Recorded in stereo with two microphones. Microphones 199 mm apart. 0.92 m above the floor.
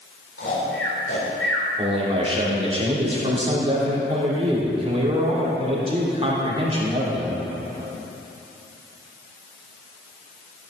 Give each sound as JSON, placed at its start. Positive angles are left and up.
{"t": 0.4, "sound": "snoring", "side_deg": 80, "distance_m": 4.0}
{"t": 1.8, "sound": "a man speaking", "side_deg": -30, "distance_m": 3.0}